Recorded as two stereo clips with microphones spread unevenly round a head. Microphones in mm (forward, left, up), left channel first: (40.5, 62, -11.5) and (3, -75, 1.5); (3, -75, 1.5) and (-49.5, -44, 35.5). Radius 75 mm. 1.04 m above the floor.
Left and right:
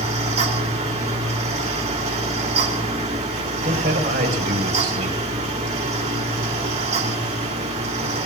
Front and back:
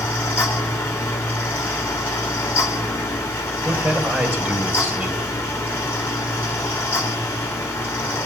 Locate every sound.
0.0 s a fan: 65° right, 3 m
3.6 s a man speaking: 140° right, 4.5 m